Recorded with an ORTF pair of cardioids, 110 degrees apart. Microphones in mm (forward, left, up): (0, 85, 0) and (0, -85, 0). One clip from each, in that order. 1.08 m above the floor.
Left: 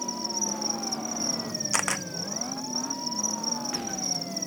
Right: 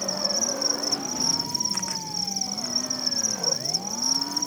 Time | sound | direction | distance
0.0 | an insect | 40° right | ?
1.7 | a camera shutter | 70° left | ?